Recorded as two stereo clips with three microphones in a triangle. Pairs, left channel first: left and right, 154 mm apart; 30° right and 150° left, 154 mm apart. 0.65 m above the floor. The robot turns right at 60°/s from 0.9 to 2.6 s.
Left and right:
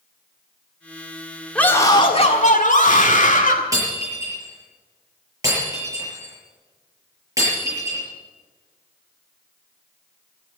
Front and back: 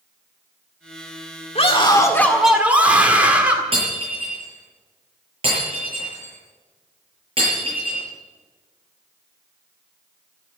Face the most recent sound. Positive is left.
turn(degrees=-160)